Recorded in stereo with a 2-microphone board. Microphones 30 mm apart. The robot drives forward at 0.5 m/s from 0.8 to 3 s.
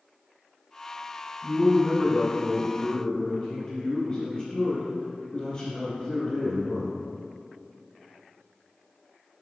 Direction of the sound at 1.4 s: 30° left (ahead or behind).